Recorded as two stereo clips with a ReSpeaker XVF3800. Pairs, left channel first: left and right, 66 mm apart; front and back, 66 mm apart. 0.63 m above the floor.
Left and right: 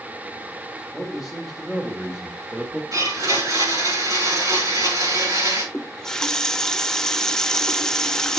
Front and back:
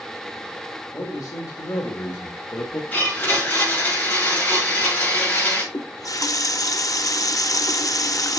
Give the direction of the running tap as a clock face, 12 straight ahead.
12 o'clock.